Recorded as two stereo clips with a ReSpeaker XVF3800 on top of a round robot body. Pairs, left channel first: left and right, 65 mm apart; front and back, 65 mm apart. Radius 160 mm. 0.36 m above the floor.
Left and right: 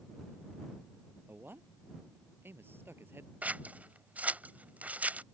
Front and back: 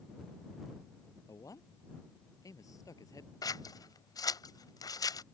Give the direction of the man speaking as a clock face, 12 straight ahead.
1 o'clock.